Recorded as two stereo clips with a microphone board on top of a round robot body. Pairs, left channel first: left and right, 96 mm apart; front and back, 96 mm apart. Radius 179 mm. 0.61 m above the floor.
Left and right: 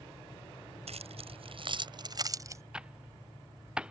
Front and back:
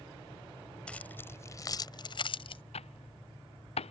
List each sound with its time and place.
0.9 s keys jangling: 80° right; by 2.6 s 30° right
2.7 s typing on a keyboard: 10° right